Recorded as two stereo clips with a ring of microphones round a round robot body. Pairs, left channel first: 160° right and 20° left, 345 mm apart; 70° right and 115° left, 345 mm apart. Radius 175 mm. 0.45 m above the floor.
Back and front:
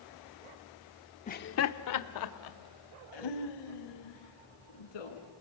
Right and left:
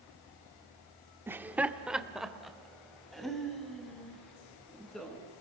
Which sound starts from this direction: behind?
Laughter, at 1.3 s.